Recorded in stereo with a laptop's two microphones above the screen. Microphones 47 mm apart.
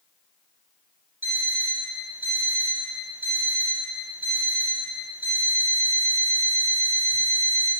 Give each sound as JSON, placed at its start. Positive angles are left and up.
{"t": 1.2, "sound": "an alarm clock", "side_deg": -50, "distance_m": 3.0}